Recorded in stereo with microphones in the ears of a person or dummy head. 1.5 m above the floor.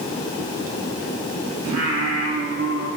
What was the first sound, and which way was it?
Singing, 80° right.